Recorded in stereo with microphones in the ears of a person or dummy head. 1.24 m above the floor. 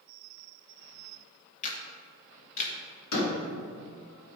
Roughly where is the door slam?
Left.